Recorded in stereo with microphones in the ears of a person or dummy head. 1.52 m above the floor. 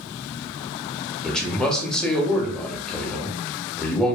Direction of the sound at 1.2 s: 5° left (ahead or behind).